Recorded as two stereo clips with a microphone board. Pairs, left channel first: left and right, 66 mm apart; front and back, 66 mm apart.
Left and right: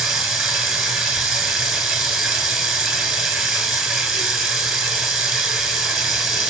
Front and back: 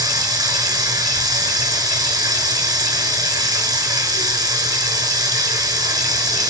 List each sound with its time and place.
0.0 s running water: straight behind, 6.5 m